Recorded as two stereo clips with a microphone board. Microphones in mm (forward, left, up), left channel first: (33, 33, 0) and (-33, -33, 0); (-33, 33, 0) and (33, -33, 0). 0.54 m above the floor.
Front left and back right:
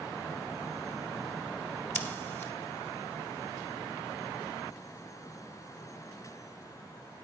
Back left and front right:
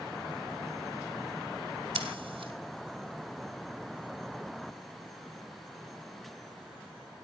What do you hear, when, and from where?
1.9 s scissors: 20° right, 1.3 m